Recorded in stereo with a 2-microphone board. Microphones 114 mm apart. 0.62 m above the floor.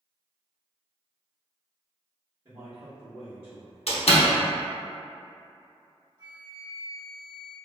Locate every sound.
2.5 s a man speaking: 50° right (ahead or behind), 1.3 m; by 3.8 s 70° right (ahead or behind), 1.8 m
3.9 s a door slam: 70° left (ahead or behind), 0.7 m
6.2 s a flute: 40° right (ahead or behind), 1.2 m